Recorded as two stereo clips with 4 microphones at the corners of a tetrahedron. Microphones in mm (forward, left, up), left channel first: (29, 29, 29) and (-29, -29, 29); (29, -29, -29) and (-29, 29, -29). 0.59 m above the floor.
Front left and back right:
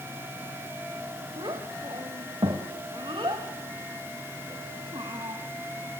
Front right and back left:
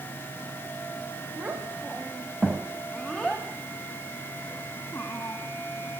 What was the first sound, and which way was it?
A child speaking, 160° right.